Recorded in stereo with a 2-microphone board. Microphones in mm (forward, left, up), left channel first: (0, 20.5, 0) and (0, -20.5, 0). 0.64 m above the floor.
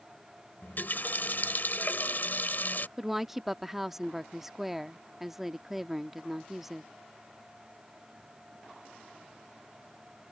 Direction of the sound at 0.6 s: 55° left (ahead or behind).